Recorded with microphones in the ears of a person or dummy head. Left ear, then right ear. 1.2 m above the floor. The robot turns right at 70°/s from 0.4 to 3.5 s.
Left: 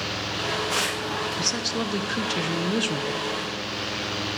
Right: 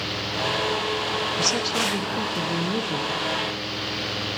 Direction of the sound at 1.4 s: 10° right.